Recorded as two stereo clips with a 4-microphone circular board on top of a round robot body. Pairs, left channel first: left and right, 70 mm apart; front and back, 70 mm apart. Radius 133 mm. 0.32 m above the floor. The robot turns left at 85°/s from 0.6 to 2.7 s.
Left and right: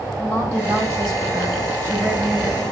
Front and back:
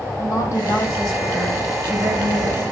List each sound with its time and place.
0.2 s a woman speaking: 40° right, 3.5 m; by 2.6 s 145° left, 3.5 m